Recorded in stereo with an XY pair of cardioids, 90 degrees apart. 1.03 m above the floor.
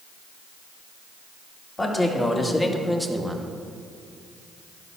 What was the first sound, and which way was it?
A man speaking, 25° left.